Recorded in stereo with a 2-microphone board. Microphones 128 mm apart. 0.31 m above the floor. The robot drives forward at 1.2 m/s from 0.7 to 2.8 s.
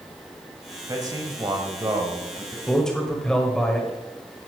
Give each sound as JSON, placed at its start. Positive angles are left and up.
{"t": 0.9, "sound": "a man speaking", "side_deg": -25, "distance_m": 1.4}
{"t": 2.7, "sound": "a man speaking", "side_deg": 5, "distance_m": 1.5}